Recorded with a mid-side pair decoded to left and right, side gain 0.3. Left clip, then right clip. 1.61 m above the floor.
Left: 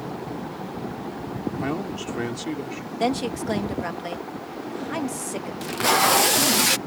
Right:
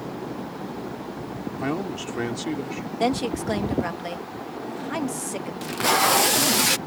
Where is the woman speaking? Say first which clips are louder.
Even; 10° right.